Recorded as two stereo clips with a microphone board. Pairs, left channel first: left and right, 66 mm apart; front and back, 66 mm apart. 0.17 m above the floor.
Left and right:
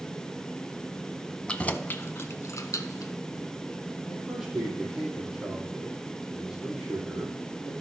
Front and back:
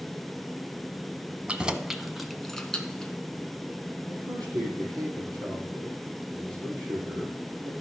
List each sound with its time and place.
1.5 s keys jangling: 140° left, 0.7 m; by 3.1 s 75° left, 1.3 m
4.1 s a man speaking: 170° right, 4.5 m